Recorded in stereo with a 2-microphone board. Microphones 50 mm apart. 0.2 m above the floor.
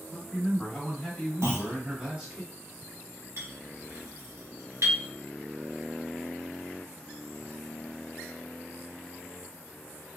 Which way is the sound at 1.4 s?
80° right.